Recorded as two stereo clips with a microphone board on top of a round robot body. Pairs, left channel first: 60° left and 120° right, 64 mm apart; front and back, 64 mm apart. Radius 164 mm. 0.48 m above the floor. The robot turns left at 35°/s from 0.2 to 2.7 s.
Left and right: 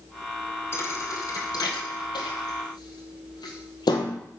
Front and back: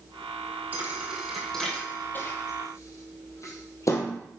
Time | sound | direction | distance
0.7 | a thud | 115° left | 1.4 m